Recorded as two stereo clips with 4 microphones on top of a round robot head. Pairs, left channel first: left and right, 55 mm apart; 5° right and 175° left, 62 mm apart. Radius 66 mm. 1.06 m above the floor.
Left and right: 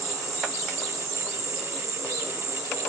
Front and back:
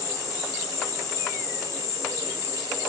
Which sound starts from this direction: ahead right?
An insect, at 0.0 s.